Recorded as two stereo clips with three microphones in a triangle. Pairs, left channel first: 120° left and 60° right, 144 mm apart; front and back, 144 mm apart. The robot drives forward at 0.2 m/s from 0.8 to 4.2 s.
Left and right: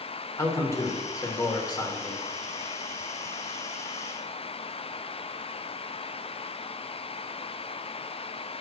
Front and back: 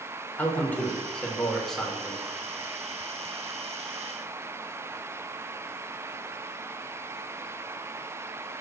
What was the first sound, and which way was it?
A man speaking, 70° left.